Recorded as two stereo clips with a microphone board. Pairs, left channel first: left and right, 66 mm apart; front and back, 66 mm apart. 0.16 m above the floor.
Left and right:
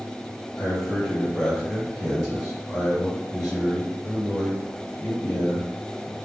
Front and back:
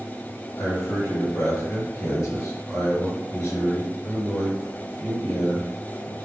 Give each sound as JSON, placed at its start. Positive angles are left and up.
{"t": 0.6, "sound": "a man speaking", "azimuth_deg": -10, "distance_m": 2.0}